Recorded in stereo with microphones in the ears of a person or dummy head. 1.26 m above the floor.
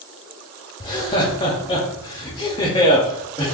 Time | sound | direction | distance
0.8 | laughter | 25° left (ahead or behind) | 0.5 m